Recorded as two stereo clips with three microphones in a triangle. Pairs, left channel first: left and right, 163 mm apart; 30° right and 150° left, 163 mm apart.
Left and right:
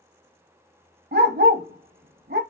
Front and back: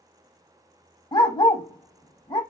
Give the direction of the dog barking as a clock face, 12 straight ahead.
3 o'clock.